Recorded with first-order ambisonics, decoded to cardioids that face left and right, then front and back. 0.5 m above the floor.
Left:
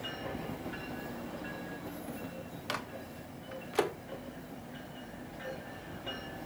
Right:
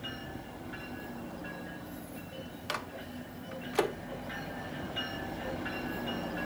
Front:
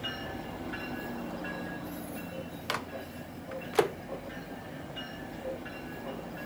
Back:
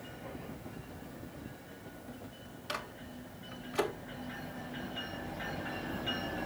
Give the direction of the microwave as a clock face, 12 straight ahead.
12 o'clock.